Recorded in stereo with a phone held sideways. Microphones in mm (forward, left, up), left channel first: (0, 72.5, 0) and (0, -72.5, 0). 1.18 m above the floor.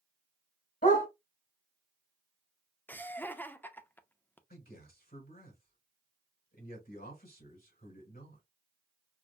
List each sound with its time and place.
0.8 s a dog barking: 75° left (ahead or behind), 3.5 m
2.9 s laughter: 10° left (ahead or behind), 0.6 m
4.5 s a man speaking: 80° left, 3 m